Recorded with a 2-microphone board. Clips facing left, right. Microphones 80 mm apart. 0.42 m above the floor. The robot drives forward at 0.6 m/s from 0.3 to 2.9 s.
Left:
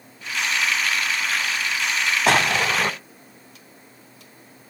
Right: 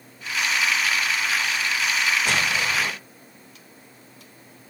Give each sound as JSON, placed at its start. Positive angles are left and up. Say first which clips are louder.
{"t": 2.3, "sound": "an explosion", "louder": "left 5 dB", "side_deg": 85, "distance_m": 0.7}